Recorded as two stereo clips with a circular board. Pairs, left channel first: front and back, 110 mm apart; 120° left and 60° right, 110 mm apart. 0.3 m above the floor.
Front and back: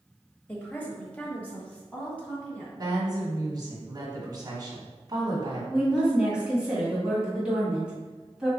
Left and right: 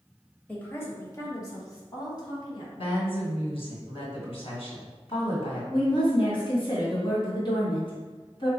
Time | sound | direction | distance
0.5 | a woman speaking | 60° left | 1.0 m
2.8 | a woman speaking | 130° left | 1.9 m
5.7 | a woman speaking | 100° left | 1.9 m